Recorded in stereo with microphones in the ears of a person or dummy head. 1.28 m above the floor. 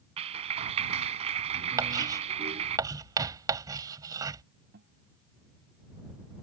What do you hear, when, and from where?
0.2 s a clap: 35° right (ahead or behind)
1.8 s writing: 20° right (ahead or behind)
4.7 s a guitar: 60° right (ahead or behind)